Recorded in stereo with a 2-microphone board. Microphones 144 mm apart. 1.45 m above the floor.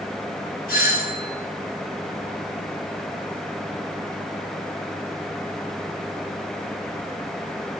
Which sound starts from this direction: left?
A doorbell, at 0.7 s.